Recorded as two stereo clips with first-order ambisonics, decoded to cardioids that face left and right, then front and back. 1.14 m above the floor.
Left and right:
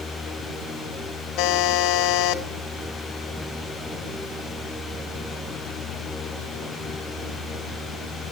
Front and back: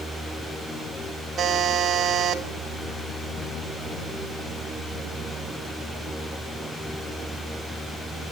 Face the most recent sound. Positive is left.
turn(degrees=115)